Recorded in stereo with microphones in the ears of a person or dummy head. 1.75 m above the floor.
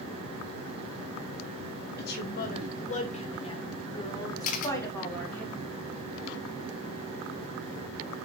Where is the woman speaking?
55° left (ahead or behind), 1.6 m; by 5.4 s 5° left (ahead or behind), 2.5 m.